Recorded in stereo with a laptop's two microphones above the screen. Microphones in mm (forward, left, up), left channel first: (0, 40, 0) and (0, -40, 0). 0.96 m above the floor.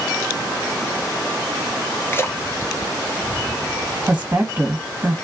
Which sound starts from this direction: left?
A splash, at 2.1 s.